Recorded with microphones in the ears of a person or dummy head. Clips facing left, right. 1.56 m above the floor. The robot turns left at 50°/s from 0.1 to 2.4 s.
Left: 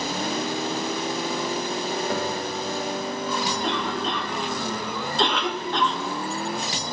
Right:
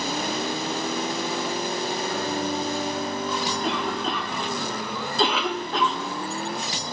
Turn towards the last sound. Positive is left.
turn(degrees=0)  # may be behind; listen again after turning